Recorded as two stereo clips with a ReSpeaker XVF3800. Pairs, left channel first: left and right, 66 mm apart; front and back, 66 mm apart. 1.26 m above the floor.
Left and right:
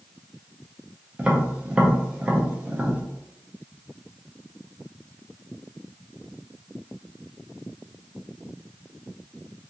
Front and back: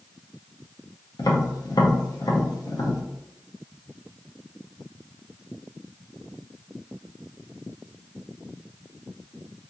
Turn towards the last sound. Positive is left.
turn(degrees=-20)